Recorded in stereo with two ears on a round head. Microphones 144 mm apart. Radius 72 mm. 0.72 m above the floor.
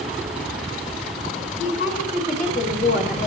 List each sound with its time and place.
1.6 s a woman speaking: 60° left (ahead or behind), 7 m; by 3.3 s 55° left (ahead or behind), 6.5 m